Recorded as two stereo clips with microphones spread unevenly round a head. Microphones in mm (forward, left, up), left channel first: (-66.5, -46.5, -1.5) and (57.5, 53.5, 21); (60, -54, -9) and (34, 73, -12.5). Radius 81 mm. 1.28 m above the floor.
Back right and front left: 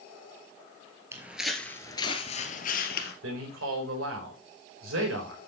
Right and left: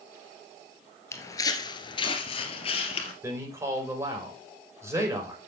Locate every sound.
1.1 s footsteps: 20° right, 1.6 m; by 3.1 s 120° right, 2 m
3.2 s a man speaking: 35° left, 5.5 m